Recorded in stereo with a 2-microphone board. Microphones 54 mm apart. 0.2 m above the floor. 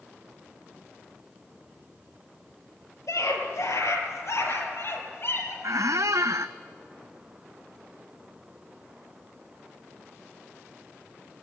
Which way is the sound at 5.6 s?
80° right.